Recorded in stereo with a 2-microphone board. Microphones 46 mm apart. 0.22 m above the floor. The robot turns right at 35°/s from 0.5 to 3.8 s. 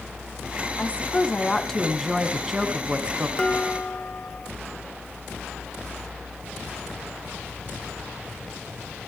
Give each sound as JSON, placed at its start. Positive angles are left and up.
{"t": 0.8, "sound": "a woman speaking", "azimuth_deg": 135, "distance_m": 2.0}
{"t": 3.4, "sound": "dishes clattering", "side_deg": 20, "distance_m": 1.6}